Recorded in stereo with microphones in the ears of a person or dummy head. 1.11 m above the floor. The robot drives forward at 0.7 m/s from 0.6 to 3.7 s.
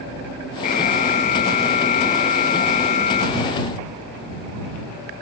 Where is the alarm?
35° left (ahead or behind).